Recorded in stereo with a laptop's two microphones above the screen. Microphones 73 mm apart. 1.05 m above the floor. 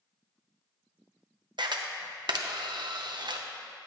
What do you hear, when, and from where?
1.6 s a camera shutter: 75° right (ahead or behind), 0.7 m